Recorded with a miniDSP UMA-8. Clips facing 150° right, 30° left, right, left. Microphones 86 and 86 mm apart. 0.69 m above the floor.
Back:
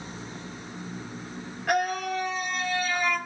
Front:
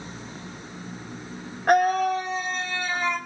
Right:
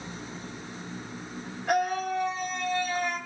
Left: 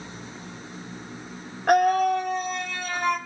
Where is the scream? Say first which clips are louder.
Front 7 dB, left 8 dB; 70° left, 2 m; by 3.2 s 90° left, 3 m.